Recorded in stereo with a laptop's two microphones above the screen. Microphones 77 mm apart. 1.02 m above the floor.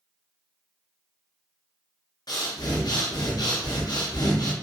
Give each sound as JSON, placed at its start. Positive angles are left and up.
{"t": 2.3, "sound": "breathing", "side_deg": 60, "distance_m": 0.6}